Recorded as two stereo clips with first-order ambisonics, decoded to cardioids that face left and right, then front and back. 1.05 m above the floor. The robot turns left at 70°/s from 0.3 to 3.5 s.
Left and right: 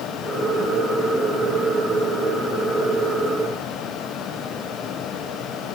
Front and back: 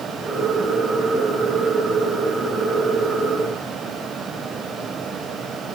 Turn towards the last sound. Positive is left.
No sound to turn to.